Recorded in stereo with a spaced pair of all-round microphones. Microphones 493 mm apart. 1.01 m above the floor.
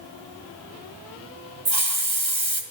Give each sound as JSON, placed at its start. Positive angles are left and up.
{"t": 1.6, "sound": "a hiss", "side_deg": -70, "distance_m": 1.6}